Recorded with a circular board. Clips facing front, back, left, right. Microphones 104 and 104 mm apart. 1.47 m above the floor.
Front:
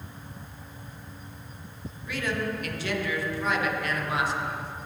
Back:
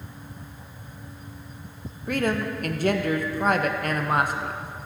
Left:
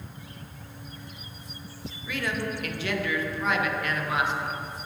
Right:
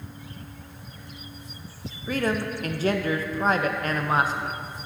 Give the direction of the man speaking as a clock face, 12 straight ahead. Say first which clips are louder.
Back 5 dB, right 5 dB; 5 o'clock.